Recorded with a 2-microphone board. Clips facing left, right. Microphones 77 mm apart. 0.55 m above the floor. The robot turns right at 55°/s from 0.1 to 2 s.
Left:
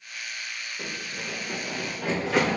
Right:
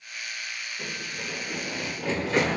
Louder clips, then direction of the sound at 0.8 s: Left 1 dB; 30° left (ahead or behind).